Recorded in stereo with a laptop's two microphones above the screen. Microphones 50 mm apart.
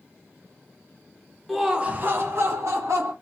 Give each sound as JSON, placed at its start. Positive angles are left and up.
{"t": 1.5, "sound": "laughter", "side_deg": 0, "distance_m": 0.9}